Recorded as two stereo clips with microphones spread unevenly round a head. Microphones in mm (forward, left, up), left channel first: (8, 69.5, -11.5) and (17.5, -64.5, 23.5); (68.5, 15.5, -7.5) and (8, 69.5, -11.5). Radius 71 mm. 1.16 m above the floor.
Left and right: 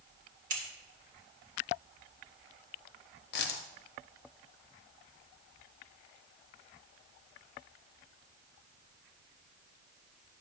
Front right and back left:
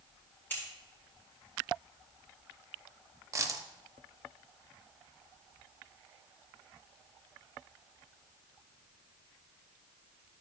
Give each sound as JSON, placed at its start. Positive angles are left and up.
{"t": 0.5, "sound": "scissors", "azimuth_deg": -115, "distance_m": 1.8}
{"t": 3.3, "sound": "a dropped coin", "azimuth_deg": 90, "distance_m": 0.8}